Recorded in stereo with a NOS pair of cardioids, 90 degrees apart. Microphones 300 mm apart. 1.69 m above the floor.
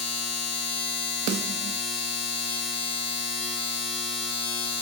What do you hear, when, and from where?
0.0 s a machine running: 60° left, 1.1 m
1.3 s a snare drum: 65° right, 0.6 m